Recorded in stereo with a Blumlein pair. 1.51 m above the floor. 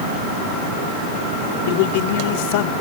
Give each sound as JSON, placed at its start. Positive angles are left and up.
{"t": 1.7, "sound": "a man speaking", "azimuth_deg": 50}